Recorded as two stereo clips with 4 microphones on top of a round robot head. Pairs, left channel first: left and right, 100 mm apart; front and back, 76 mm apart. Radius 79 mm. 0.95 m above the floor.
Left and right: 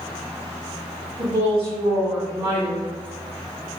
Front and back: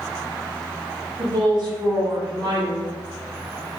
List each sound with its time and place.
1.2 s a woman speaking: 145° right, 1.5 m